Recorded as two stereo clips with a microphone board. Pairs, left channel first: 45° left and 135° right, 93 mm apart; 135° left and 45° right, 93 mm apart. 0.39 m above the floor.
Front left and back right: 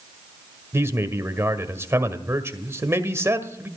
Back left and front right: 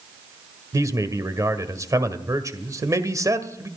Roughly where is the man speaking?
Right.